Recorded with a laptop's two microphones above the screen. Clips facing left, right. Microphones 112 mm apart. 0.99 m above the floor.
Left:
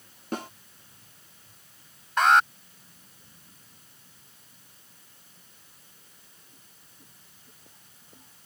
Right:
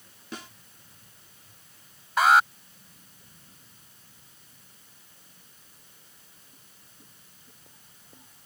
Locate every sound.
0.3 s a snare drum: 50° left (ahead or behind)
2.2 s an alarm: 5° right (ahead or behind)